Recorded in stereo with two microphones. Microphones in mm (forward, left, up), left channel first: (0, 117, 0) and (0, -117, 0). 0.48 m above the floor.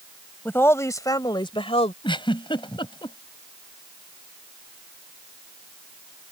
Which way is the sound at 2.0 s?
20° left (ahead or behind).